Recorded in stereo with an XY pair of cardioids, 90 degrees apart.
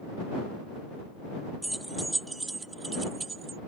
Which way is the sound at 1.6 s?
10° right.